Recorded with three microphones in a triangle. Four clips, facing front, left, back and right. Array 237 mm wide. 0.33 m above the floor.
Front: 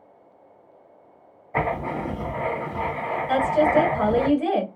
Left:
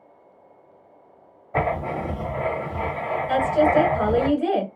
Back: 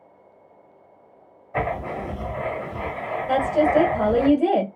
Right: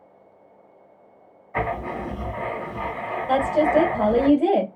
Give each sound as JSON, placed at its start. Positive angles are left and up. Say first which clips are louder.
{"t": 1.5, "sound": "writing", "louder": "left 2 dB, front 1 dB", "azimuth_deg": 80, "distance_m": 1.3}
{"t": 3.3, "sound": "a woman speaking", "louder": "even, back 1 dB", "azimuth_deg": -130, "distance_m": 1.2}